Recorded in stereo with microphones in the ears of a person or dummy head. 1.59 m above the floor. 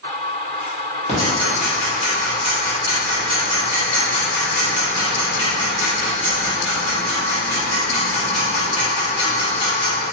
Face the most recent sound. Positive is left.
turn(degrees=40)  # may be behind; listen again after turning